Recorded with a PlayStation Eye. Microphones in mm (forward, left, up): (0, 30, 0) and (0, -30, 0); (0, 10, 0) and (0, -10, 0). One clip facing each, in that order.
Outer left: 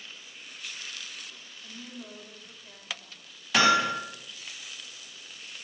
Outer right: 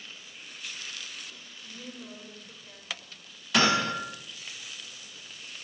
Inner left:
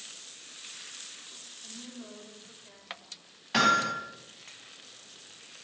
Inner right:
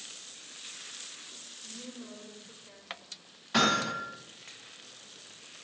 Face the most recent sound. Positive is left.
turn(degrees=25)  # may be behind; listen again after turning